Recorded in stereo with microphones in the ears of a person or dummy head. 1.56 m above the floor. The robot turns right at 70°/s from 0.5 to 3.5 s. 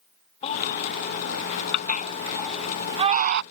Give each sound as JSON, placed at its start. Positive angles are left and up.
{"t": 0.4, "sound": "a baby crying", "side_deg": 35}